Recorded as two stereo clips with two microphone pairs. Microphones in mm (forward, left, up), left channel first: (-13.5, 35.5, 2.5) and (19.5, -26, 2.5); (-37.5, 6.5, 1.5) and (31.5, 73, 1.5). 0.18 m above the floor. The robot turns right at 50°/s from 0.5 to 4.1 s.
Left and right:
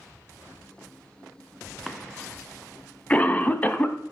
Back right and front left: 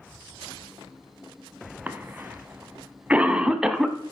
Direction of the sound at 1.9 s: 25° left.